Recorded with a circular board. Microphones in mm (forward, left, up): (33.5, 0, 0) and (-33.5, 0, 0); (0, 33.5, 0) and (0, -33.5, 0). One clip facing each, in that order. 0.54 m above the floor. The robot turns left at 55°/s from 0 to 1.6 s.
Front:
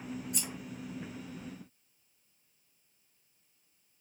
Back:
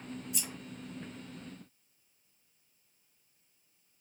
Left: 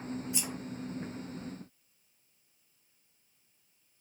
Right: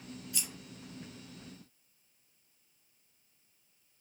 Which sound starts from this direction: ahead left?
Scissors, at 0.3 s.